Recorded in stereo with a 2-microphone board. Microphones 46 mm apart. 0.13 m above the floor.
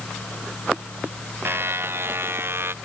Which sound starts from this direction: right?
A buzzer, at 1.4 s.